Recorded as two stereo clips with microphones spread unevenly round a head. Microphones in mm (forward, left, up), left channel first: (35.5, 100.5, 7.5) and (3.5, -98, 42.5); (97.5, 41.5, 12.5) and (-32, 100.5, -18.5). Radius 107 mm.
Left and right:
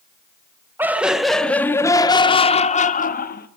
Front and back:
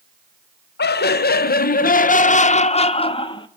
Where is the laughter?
15° right, 1.9 m; by 3.5 s 40° left, 2 m.